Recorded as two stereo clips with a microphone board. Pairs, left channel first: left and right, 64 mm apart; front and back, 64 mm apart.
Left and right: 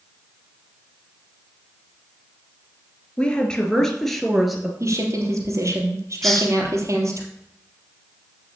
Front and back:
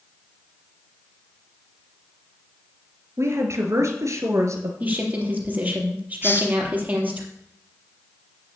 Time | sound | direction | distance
3.2 | a woman speaking | 160° left | 2.5 m
4.8 | a woman speaking | 120° right | 3.5 m
6.2 | a hiss | 10° left | 1.5 m